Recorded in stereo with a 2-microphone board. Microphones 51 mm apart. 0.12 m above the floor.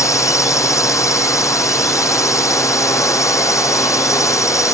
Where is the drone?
75° left (ahead or behind).